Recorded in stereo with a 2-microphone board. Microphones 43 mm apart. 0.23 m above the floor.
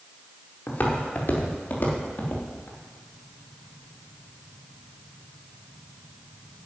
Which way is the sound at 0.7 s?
45° left (ahead or behind).